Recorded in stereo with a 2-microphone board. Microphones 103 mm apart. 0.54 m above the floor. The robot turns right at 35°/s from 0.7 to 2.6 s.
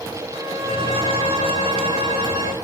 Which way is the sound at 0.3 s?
105° right.